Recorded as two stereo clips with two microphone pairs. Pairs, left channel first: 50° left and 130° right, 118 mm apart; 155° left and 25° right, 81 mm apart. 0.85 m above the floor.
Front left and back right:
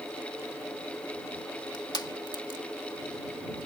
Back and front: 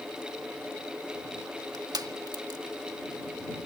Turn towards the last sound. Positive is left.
turn(degrees=0)